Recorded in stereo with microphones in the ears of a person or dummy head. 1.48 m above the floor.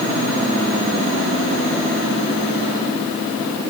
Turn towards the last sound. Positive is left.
No sound to turn to.